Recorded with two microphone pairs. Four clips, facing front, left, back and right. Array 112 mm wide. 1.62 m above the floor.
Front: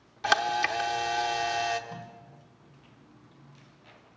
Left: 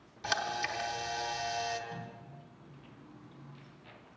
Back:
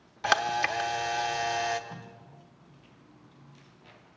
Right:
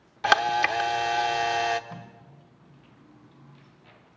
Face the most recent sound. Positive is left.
turn(degrees=-100)